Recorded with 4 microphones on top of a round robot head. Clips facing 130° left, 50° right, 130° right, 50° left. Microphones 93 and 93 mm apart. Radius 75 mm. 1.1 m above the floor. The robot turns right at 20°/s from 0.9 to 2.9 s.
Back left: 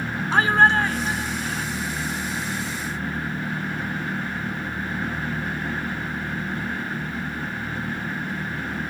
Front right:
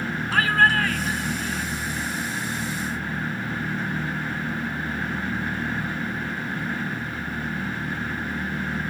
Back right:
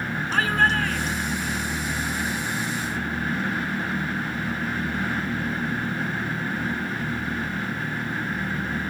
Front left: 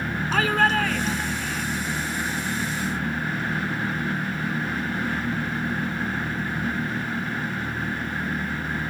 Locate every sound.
0.3 s a shout: 60° left; by 1.6 s 75° left